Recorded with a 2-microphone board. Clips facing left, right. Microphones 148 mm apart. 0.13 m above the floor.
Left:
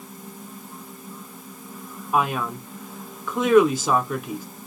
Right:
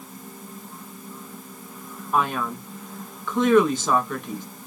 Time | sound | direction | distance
2.1 | a man speaking | 10° left (ahead or behind) | 1.1 m